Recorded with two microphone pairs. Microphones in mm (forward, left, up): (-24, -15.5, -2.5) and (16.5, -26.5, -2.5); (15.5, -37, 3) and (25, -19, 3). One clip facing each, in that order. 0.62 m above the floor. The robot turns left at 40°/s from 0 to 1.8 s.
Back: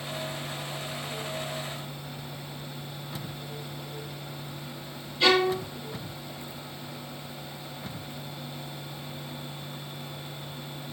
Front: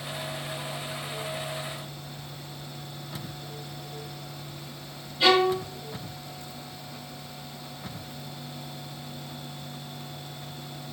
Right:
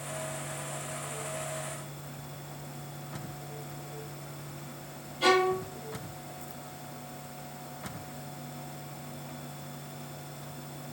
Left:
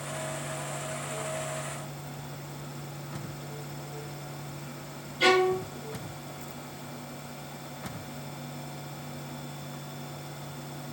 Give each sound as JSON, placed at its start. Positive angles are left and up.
{"t": 5.2, "sound": "a violin", "azimuth_deg": 65, "distance_m": 1.7}